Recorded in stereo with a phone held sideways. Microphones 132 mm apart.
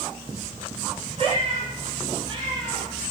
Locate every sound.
1.2 s a cat meowing: 45° right (ahead or behind), 5 m; by 2.9 s 35° right (ahead or behind), 6 m